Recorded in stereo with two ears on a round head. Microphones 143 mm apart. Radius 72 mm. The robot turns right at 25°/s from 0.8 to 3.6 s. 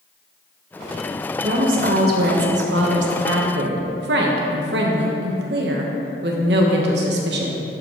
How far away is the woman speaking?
About 1.3 m.